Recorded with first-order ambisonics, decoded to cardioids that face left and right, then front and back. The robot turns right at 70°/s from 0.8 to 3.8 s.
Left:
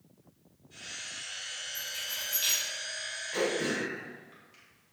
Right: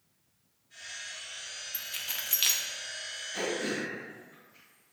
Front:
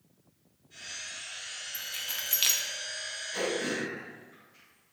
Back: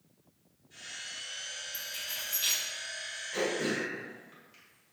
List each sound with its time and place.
1.7 s keys jangling: 85° right, 0.7 m; by 2.6 s 25° right, 0.7 m
3.3 s throat clearing: 105° left, 2.0 m; by 4.9 s 135° left, 2.0 m